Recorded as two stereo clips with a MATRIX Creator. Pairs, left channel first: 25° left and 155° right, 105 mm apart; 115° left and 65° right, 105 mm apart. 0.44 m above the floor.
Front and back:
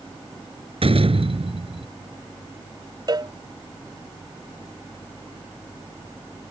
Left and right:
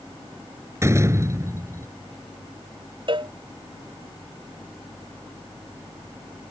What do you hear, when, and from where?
0.8 s a door slam: 130° right
3.1 s a cowbell: 105° right